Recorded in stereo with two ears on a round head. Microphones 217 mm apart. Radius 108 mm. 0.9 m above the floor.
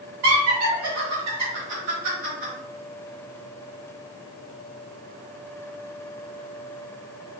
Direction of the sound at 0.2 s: 60° right (ahead or behind).